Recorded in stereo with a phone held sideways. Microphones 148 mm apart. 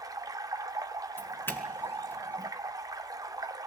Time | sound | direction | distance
0.0 | running water | 25° right (ahead or behind) | 1.4 m
1.2 | a doorbell | 15° left (ahead or behind) | 2.5 m